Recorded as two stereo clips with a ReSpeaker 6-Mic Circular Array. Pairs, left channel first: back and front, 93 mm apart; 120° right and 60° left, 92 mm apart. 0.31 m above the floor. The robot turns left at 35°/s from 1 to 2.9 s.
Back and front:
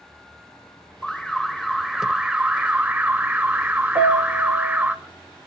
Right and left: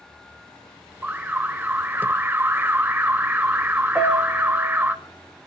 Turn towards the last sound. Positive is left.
turn(degrees=-20)